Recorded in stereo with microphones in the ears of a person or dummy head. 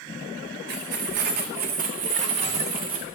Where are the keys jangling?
55° right (ahead or behind), 1.0 m; by 3.0 s 25° right (ahead or behind), 1.7 m.